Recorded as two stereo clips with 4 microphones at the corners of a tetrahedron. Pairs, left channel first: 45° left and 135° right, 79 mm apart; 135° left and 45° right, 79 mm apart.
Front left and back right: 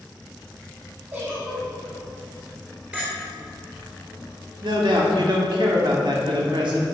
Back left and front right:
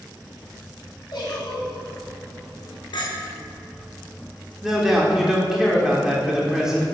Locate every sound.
1.1 s a giggle: 165° left, 3 m
2.9 s a clink: 155° left, 2.5 m
4.6 s a man speaking: 130° right, 1.6 m